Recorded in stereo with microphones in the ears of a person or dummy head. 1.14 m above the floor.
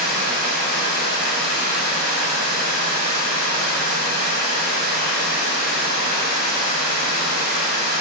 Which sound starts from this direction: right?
Running water, at 0.0 s.